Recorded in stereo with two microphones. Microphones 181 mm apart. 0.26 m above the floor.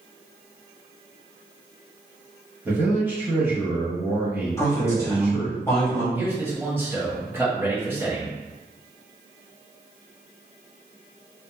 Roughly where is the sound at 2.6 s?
Centre.